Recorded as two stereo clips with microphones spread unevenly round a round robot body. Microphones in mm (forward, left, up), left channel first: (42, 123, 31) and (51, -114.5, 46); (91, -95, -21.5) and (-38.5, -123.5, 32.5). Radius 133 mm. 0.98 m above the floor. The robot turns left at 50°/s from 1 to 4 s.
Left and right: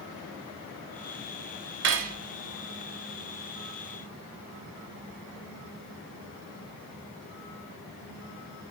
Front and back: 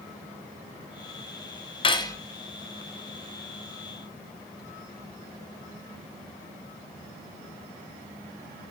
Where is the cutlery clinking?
50° right, 0.5 m; by 2.2 s 65° right, 0.5 m.